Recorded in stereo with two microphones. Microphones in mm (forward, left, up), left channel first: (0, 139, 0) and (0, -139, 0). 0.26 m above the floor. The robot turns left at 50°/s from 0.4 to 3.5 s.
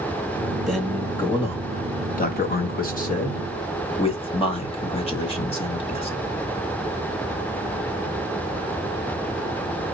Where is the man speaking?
Straight behind, 1.2 m; by 6.2 s 40° left, 1.2 m.